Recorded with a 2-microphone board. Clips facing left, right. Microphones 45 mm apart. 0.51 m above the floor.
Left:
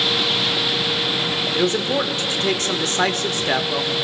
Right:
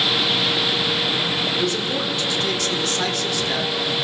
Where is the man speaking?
40° left (ahead or behind), 1.0 m.